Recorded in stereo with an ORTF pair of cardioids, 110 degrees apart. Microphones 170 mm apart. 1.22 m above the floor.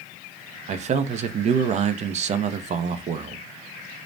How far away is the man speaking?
About 0.5 m.